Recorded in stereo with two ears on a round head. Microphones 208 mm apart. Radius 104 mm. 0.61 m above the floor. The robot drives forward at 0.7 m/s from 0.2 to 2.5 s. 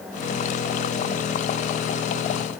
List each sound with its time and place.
Only background noise.